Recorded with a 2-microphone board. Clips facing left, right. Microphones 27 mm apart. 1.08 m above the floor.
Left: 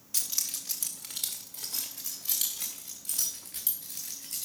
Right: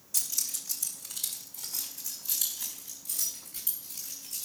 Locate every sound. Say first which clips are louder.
0.1 s keys jangling: left 1 dB; 40° left (ahead or behind), 1.4 m; by 4.5 s 85° left, 4.5 m